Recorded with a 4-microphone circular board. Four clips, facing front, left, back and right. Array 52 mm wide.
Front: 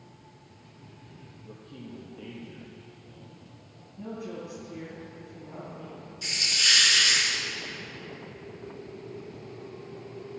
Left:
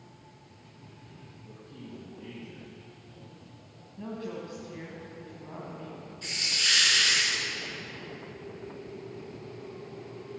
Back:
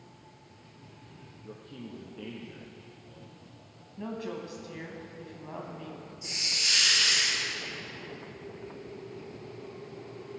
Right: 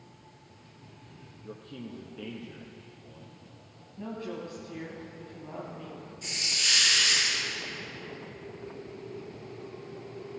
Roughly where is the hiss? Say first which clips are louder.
Left 1 dB, front 6 dB; ahead.